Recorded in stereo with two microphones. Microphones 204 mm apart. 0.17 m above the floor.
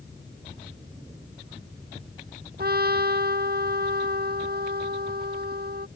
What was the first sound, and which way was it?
A trumpet, 50° right (ahead or behind).